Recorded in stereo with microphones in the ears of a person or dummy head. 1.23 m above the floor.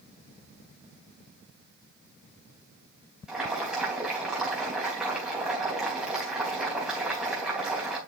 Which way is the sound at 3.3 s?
10° right (ahead or behind).